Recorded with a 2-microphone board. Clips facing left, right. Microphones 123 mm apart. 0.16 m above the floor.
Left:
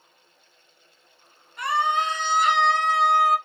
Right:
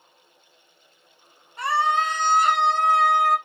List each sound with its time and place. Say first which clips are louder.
1.6 s a scream: right 1 dB; 35° right (ahead or behind), 1.3 m; by 3.4 s 55° right (ahead or behind), 2 m